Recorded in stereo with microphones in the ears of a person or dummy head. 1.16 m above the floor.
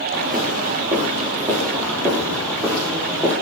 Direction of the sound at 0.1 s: 25° right (ahead or behind).